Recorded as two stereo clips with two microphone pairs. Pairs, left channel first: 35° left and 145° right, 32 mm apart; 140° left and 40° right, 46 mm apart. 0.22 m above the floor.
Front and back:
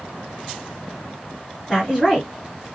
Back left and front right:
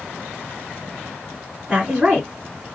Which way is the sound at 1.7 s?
60° right.